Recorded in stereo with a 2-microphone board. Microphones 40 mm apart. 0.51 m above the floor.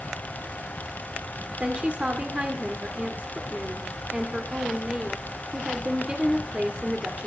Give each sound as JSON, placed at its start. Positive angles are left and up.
{"t": 1.6, "sound": "a woman speaking", "side_deg": -30, "distance_m": 1.7}